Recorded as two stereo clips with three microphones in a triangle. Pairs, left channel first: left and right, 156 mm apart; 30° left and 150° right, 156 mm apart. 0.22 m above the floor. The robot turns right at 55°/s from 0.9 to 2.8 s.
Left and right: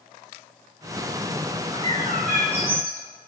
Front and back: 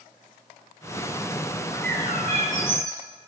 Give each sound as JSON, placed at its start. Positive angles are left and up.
{"t": 1.7, "sound": "a bird", "azimuth_deg": -145, "distance_m": 1.6}